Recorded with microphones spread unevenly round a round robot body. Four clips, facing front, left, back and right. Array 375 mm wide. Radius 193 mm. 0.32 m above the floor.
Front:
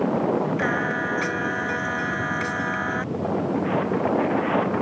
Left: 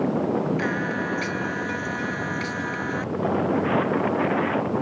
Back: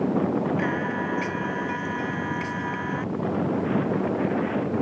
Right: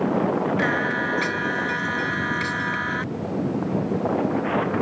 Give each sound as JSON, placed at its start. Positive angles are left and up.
{"t": 0.6, "sound": "singing", "azimuth_deg": -5}